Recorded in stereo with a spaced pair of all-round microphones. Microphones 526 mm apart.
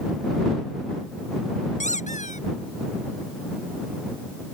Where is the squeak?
15° left (ahead or behind).